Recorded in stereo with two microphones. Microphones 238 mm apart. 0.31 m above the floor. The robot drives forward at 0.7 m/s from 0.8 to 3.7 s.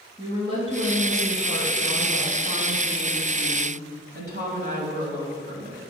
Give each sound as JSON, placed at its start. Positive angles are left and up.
{"t": 0.2, "sound": "a woman speaking", "side_deg": -25, "distance_m": 3.0}